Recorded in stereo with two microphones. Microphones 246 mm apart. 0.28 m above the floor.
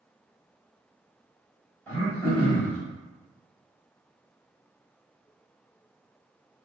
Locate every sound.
1.9 s throat clearing: 10° left (ahead or behind), 1.6 m